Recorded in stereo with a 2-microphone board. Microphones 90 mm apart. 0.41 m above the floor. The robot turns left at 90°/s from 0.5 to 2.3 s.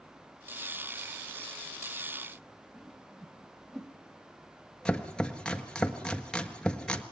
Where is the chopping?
10° left (ahead or behind), 1.6 m.